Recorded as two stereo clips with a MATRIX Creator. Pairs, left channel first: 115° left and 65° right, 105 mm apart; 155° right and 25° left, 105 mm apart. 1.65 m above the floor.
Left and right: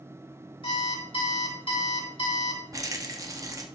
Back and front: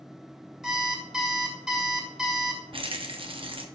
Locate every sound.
0.6 s an alarm clock: 110° left, 1.8 m
2.7 s a rattle: 10° right, 0.7 m